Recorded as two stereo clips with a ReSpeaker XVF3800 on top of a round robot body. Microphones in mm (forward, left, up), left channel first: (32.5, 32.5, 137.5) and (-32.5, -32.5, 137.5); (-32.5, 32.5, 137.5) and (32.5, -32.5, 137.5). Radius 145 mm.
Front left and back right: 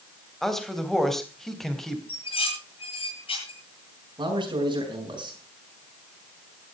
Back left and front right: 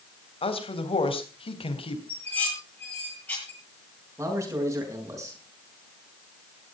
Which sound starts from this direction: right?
A man speaking, at 4.2 s.